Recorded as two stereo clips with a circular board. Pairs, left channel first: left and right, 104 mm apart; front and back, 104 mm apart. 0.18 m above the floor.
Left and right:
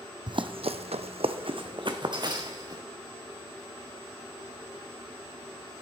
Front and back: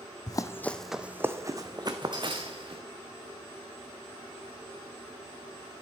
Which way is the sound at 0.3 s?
50° right.